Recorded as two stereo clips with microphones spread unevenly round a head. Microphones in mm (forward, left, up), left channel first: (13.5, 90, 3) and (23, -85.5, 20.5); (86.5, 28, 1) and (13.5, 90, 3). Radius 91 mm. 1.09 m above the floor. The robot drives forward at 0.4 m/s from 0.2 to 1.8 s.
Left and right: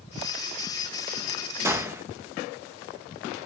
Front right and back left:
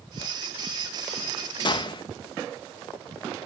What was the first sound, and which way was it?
A gunshot, 10° right.